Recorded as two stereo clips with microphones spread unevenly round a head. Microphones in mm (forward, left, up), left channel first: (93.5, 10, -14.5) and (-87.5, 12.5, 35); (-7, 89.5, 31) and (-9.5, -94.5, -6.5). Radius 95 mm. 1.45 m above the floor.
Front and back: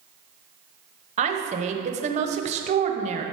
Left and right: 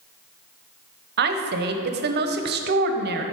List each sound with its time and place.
1.2 s a woman speaking: 125° right, 0.9 m